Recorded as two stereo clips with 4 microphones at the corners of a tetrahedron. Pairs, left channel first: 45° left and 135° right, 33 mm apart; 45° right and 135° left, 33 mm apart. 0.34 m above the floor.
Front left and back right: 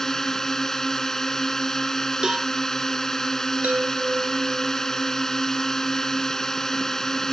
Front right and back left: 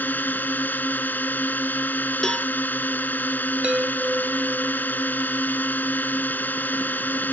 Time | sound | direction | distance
0.0 | a drone | 30° right | ?
2.2 | a cowbell | 95° right | ?
3.6 | a chime | 165° right | ?